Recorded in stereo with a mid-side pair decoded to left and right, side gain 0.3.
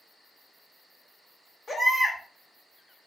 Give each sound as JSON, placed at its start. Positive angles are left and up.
{"t": 1.7, "sound": "a baby crying", "azimuth_deg": 65, "distance_m": 1.7}